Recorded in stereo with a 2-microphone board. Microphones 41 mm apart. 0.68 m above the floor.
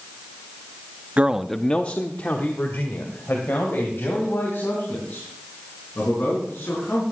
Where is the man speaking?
35° right (ahead or behind), 0.6 m; by 7.1 s 70° left (ahead or behind), 7 m.